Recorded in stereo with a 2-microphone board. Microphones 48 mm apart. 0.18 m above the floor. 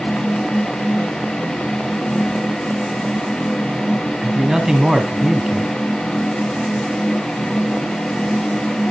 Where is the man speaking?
15° right (ahead or behind), 1.1 m.